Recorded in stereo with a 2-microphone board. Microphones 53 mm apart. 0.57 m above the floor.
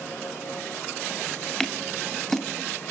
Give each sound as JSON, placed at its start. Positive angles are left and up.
{"t": 1.6, "sound": "scissors", "side_deg": 10, "distance_m": 1.6}